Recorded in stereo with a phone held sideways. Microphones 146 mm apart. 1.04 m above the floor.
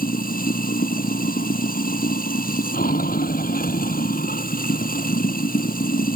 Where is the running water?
80° left.